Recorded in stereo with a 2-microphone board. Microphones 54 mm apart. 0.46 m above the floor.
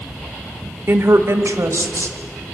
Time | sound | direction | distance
0.9 | a woman speaking | 45° right (ahead or behind) | 1.0 m